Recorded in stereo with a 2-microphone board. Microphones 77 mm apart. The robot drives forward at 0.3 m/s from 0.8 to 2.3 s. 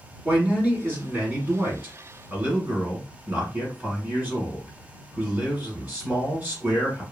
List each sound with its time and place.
0.2 s a man speaking: 25° right (ahead or behind), 1.2 m; by 7.0 s 20° right (ahead or behind), 1.3 m